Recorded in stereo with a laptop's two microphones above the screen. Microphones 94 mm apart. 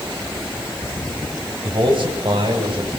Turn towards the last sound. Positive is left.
turn(degrees=-65)  # may be behind; listen again after turning